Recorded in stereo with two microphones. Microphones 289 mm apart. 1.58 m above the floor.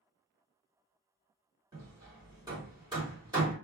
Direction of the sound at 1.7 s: 15° right (ahead or behind).